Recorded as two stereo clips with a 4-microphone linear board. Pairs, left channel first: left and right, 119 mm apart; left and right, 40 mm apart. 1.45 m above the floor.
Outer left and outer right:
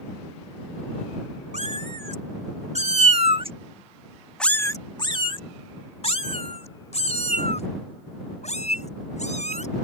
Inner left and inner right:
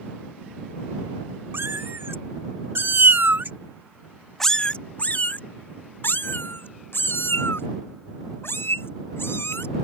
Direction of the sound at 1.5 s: 80° right.